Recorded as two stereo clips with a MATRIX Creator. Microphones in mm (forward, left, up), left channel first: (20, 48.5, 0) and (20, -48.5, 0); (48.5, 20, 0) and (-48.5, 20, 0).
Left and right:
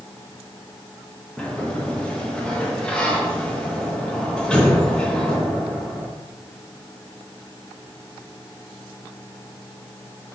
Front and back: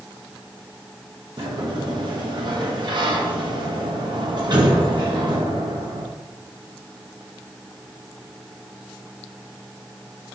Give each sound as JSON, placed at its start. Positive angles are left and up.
{"t": 1.4, "sound": "a sliding door", "azimuth_deg": 165, "distance_m": 1.1}